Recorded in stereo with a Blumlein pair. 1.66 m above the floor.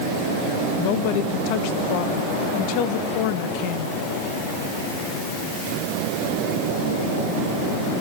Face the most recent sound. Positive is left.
turn(degrees=45)